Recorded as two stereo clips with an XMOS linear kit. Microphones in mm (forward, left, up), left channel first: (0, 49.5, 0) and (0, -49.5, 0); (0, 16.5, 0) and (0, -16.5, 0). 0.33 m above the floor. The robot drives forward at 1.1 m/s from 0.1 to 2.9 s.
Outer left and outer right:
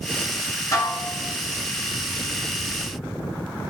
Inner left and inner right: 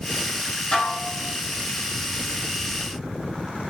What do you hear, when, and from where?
0.7 s dishes clattering: 30° left (ahead or behind), 3 m